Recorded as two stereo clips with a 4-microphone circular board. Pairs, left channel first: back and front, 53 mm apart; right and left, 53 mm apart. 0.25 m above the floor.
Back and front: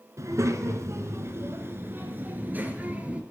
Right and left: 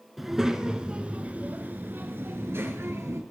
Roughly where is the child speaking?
Ahead.